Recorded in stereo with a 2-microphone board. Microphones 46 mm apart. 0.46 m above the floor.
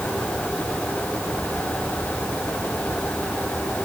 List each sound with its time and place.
Only background noise.